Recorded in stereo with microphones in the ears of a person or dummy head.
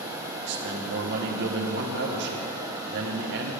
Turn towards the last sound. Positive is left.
turn(degrees=-60)  # may be behind; listen again after turning